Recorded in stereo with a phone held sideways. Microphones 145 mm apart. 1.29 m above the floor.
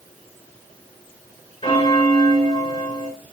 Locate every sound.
1.6 s a bell: 35° left (ahead or behind), 2.5 m